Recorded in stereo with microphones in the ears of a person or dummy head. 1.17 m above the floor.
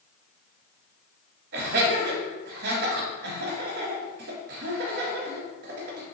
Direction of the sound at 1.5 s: 50° right (ahead or behind).